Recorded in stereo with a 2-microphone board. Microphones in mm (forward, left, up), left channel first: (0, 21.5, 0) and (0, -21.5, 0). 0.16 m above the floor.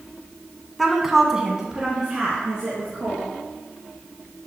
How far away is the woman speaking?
About 1.3 m.